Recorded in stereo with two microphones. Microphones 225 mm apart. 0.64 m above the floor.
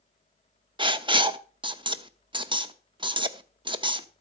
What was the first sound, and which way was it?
Writing, 20° right (ahead or behind).